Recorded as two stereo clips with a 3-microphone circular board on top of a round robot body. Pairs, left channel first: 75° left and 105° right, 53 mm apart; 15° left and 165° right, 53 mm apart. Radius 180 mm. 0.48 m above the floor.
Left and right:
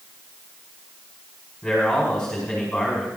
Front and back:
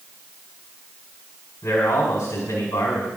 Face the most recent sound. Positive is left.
turn(degrees=-10)